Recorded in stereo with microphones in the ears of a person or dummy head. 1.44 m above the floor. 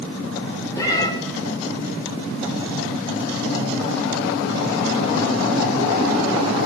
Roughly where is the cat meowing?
Left.